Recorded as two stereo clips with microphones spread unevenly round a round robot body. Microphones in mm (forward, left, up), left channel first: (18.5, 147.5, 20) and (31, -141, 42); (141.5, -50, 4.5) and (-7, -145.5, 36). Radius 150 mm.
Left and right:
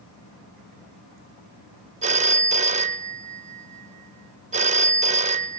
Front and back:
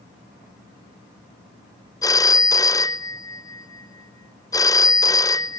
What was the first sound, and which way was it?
A phone ringing, 25° right.